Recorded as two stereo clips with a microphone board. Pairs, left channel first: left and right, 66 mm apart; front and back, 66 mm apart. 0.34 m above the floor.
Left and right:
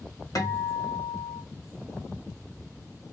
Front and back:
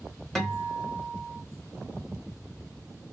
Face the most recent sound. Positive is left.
turn(degrees=85)